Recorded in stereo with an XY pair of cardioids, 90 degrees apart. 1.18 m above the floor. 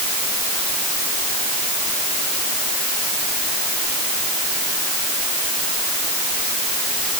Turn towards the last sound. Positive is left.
No sound to turn to.